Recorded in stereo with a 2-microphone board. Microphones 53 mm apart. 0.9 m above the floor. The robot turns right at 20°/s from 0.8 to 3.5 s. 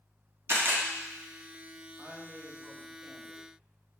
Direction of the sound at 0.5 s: 55° right (ahead or behind).